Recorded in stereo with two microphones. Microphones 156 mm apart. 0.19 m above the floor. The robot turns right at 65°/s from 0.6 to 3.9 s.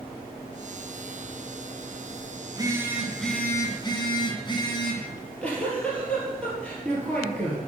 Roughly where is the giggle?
Centre.